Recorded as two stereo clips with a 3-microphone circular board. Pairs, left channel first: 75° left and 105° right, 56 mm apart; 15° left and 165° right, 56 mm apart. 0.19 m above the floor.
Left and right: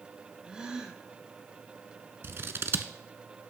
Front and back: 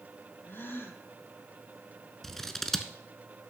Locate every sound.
0.5 s a gasp: 30° right, 1.5 m
2.2 s scissors: 65° right, 0.7 m